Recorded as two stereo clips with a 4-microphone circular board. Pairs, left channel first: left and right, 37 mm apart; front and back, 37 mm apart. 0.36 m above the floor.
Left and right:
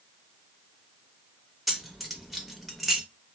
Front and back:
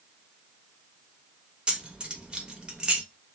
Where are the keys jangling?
170° right, 0.7 m.